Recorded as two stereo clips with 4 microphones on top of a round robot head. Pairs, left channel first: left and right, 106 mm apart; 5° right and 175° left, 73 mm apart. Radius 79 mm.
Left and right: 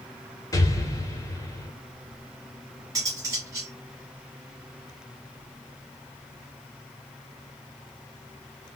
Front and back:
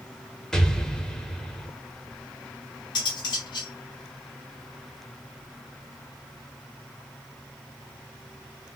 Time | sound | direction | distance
0.5 | an explosion | 75° left | 1.2 m
3.0 | cutlery clinking | 25° right | 1.9 m